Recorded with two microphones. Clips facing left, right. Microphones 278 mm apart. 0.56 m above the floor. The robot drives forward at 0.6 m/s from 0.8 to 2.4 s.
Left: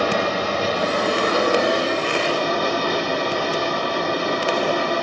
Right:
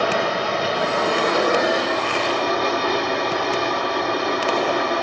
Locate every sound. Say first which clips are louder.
0.0 s running water: left 1 dB; 40° left (ahead or behind), 2.5 m; by 5.0 s 30° left (ahead or behind), 3.5 m